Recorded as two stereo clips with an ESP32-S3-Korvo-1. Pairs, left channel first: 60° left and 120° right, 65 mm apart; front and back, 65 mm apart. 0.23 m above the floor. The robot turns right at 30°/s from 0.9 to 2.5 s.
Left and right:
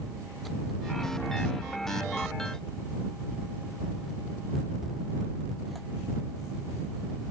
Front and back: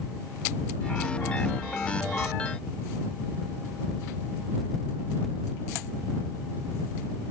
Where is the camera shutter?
No camera shutter in this recording.